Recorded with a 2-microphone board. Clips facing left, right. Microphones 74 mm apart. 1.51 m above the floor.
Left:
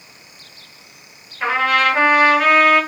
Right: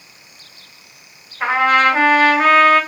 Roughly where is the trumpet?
Right.